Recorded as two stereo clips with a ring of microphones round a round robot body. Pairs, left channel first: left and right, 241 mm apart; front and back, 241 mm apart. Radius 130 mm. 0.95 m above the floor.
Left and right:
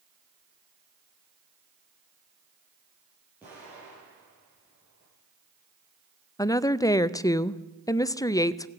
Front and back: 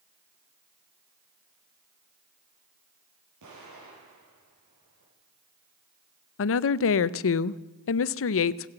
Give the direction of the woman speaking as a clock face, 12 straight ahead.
11 o'clock.